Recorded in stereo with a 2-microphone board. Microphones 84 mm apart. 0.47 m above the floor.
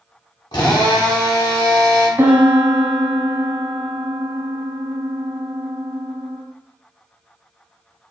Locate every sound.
0.5 s a drill: 65° left (ahead or behind), 1.2 m
2.2 s a piano: 25° right (ahead or behind), 0.6 m